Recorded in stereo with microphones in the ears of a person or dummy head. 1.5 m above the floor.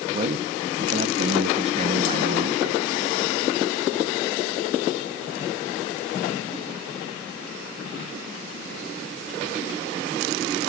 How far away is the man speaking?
About 0.9 m.